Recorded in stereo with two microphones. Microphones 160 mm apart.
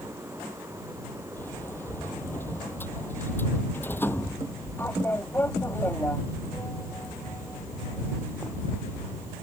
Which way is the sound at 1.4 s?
15° left (ahead or behind).